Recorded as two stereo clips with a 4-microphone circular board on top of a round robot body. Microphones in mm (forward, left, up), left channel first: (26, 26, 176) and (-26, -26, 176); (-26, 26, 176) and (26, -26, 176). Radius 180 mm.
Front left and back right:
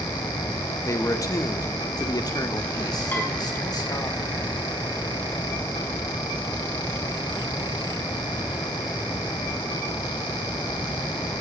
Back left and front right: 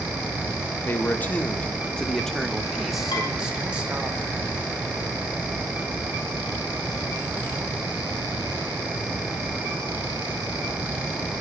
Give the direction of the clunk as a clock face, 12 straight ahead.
I don't hear a clunk.